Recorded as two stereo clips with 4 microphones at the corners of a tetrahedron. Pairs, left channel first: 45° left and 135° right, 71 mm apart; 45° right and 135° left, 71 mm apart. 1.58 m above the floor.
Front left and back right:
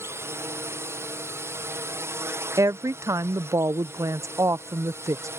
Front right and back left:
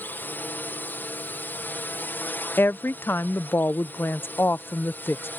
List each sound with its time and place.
0.0 s a drone: 100° right
2.6 s a woman speaking: 100° right